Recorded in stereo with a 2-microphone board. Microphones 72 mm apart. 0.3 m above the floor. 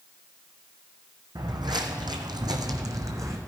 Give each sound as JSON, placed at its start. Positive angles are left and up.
{"t": 1.4, "sound": "footsteps", "side_deg": -65, "distance_m": 1.1}